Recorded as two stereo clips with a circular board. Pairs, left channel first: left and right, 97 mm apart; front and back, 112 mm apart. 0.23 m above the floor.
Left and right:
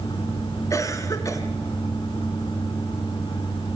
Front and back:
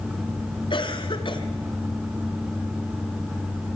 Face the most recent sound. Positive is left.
turn(degrees=35)